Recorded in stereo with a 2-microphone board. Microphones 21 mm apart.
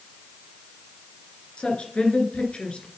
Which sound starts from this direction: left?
A woman speaking, at 1.6 s.